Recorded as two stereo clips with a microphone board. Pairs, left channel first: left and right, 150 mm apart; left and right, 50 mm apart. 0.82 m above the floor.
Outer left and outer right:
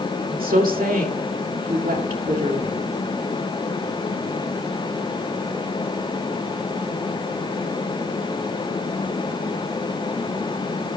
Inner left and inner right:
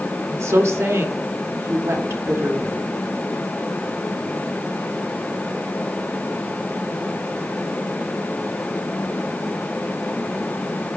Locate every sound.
0.3 s a woman speaking: 75° right (ahead or behind), 2.5 m